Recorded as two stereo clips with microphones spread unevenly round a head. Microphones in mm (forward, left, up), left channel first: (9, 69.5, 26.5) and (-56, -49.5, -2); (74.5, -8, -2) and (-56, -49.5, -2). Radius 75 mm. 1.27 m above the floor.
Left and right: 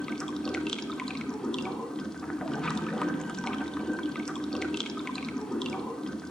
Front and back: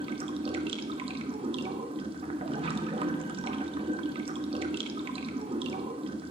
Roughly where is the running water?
Behind left.